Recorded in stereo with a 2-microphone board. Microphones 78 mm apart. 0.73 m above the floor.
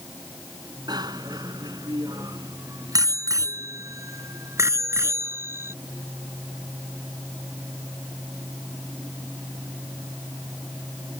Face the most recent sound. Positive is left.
turn(degrees=-35)  # may be behind; listen again after turning